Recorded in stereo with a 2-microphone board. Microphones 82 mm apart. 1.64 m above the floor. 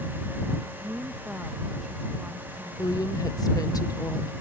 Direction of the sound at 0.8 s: 15° right (ahead or behind).